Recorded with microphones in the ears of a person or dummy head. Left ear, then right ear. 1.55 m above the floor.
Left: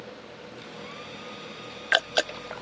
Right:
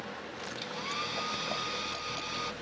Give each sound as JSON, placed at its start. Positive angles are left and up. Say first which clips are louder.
{"t": 0.6, "sound": "a hair dryer", "louder": "right 7 dB", "side_deg": -45}